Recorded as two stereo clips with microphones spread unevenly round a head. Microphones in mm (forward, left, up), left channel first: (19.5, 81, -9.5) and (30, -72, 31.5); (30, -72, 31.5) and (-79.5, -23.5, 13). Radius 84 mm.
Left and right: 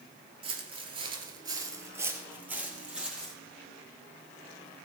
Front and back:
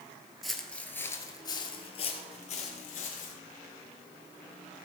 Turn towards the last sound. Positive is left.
turn(degrees=-5)